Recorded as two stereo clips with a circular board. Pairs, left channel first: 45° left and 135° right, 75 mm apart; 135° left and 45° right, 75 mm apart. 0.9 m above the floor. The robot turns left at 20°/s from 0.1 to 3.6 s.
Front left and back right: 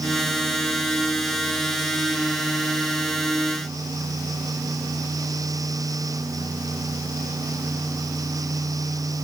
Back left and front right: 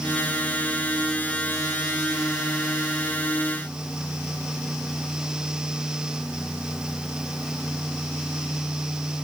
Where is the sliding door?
No sliding door in this recording.